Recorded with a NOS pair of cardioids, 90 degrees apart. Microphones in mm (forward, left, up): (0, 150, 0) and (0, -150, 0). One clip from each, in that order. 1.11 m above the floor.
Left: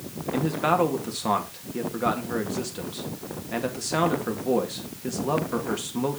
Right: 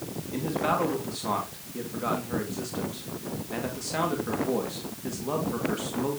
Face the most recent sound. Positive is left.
turn(degrees=35)